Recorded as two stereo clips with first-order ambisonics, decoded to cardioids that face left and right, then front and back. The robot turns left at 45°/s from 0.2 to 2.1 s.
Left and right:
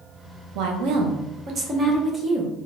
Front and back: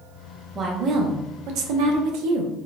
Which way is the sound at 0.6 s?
105° right.